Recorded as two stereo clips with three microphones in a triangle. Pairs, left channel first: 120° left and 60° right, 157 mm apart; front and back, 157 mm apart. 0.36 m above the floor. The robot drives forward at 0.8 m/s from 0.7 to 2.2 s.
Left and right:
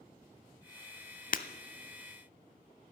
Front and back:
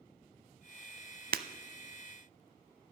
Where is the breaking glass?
155° left, 0.6 m.